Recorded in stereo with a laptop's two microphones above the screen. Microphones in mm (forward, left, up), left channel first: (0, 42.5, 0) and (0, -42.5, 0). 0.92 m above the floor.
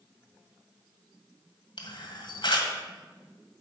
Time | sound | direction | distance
1.8 | a camera shutter | 70° left (ahead or behind) | 1.7 m